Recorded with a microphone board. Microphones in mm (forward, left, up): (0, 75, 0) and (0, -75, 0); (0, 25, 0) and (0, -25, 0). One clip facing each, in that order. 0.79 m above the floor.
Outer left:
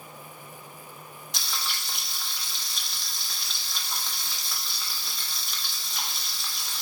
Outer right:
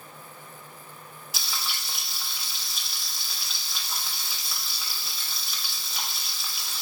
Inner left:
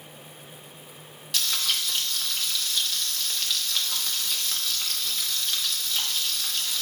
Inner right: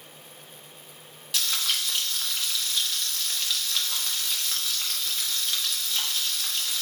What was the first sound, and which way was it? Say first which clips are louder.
Frying: even, even; 5° right (ahead or behind).